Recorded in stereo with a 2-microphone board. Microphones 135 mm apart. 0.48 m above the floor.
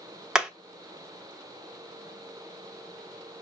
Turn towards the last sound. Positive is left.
turn(degrees=-5)  # may be behind; listen again after turning